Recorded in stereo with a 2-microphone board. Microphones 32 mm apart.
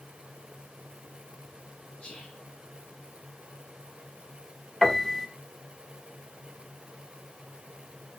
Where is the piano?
10° left (ahead or behind), 1.4 m.